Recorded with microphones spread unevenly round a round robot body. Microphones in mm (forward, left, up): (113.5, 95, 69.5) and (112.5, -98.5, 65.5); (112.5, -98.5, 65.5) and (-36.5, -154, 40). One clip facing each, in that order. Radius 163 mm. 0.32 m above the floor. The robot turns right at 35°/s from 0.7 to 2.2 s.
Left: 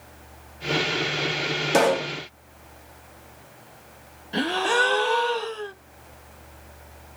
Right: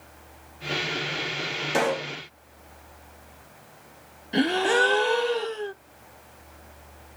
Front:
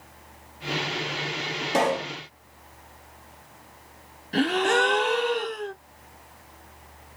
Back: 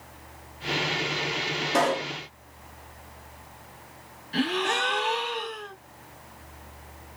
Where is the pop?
95° left, 0.9 m; by 2.1 s 110° left, 0.9 m.